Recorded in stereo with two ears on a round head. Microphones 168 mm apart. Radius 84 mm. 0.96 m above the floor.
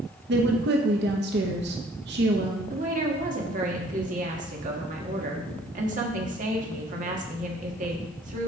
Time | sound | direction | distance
0.3 | a woman speaking | 60° right (ahead or behind) | 0.8 m
2.7 | a woman speaking | 45° right (ahead or behind) | 1.6 m